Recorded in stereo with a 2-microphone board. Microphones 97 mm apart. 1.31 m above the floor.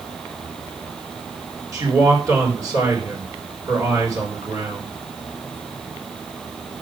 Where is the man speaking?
35° right (ahead or behind), 5 m.